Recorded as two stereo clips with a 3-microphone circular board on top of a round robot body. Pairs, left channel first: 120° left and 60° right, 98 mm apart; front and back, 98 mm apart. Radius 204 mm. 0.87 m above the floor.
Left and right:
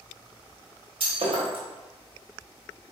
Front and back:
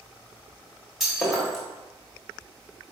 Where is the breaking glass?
95° right, 1.3 m.